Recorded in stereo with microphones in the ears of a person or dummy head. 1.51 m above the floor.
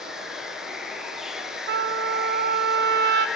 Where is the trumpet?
60° right (ahead or behind), 1.5 m.